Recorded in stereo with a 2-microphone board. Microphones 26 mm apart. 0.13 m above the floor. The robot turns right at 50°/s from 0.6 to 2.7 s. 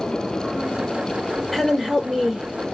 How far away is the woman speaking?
About 1.8 m.